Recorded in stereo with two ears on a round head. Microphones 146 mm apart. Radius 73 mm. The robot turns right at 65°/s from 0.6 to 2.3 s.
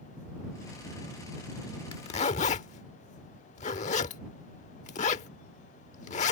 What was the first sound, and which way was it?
A zipper, 30° left (ahead or behind).